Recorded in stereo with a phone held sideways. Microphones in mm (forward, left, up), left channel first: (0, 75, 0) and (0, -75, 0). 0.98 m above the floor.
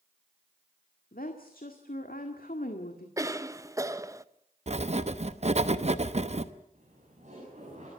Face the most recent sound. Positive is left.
turn(degrees=-55)  # may be behind; listen again after turning